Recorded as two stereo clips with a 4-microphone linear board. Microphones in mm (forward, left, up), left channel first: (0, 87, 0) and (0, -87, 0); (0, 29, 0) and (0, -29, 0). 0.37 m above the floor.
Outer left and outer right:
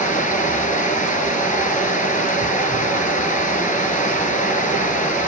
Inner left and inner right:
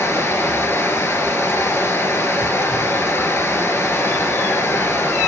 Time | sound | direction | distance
0.0 | running water | 45° left (ahead or behind) | 1.4 m